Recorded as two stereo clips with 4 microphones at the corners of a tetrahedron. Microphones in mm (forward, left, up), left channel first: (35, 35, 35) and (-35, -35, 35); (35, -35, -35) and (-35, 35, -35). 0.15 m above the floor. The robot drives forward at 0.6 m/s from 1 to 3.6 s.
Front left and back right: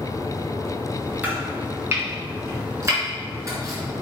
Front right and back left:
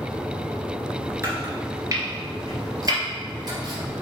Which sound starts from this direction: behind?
Chopping, at 1.2 s.